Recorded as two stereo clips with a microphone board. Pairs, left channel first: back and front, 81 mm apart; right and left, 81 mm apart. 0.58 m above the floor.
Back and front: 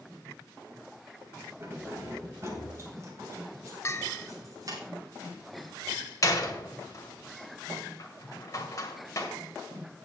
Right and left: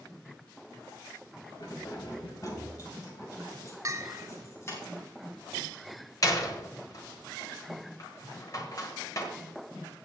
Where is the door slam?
130° right, 1.6 m.